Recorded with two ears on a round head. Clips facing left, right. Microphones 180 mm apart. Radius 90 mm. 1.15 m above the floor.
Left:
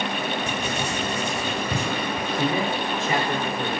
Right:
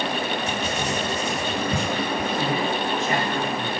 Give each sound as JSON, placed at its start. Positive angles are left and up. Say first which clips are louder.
{"t": 0.5, "sound": "writing", "louder": "right 1 dB", "side_deg": 75, "distance_m": 6.0}
{"t": 2.4, "sound": "a man speaking", "louder": "even", "side_deg": 80, "distance_m": 4.5}